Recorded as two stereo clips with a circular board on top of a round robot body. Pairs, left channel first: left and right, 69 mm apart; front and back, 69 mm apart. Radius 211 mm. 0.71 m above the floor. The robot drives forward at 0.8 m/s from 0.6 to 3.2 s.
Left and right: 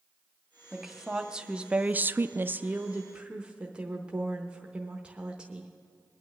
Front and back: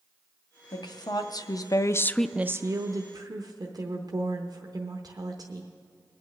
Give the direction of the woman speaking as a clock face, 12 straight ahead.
12 o'clock.